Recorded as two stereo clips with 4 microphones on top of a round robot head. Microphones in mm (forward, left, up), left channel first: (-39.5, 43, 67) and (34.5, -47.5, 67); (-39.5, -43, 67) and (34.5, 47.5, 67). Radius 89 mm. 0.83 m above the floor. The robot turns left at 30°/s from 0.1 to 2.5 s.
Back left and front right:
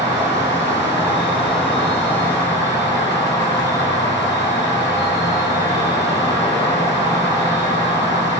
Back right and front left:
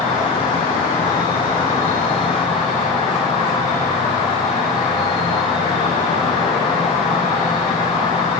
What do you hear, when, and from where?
0.0 s an insect: 95° right, 3 m; by 8.4 s 170° right, 3 m